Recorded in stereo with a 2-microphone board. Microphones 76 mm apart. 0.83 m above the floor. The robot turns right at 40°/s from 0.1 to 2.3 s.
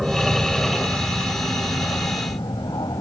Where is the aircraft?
5° right (ahead or behind); by 3.0 s 70° left (ahead or behind).